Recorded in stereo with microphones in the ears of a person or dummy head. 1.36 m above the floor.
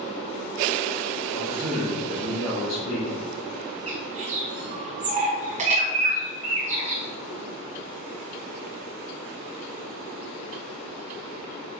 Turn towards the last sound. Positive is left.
turn(degrees=-30)  # may be behind; listen again after turning